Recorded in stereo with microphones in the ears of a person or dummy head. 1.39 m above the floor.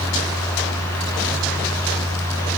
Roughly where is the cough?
I don't hear a cough.